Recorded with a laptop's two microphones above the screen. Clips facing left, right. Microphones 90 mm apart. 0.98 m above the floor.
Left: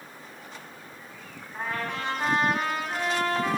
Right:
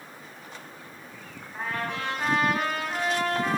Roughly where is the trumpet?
Centre.